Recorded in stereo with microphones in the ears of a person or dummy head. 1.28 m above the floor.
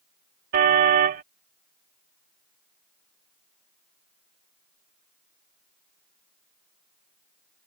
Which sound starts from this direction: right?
A car horn, at 0.5 s.